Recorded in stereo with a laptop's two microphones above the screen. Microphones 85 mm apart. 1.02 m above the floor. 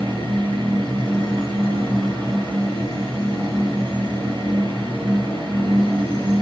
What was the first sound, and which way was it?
A fan, 65° right (ahead or behind).